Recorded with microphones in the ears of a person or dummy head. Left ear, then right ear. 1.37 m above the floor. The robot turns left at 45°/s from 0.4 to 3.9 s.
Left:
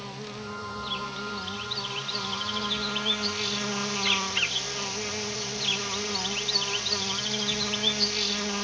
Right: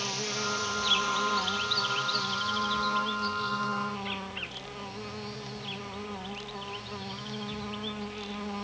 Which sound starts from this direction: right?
An insect, at 0.0 s.